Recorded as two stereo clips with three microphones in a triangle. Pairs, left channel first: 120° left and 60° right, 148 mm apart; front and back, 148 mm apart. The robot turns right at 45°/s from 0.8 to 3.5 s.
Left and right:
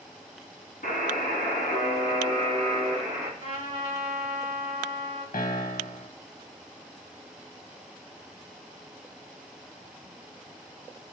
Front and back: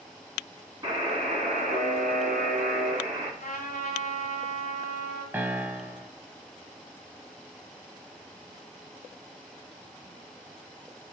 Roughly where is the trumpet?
Ahead.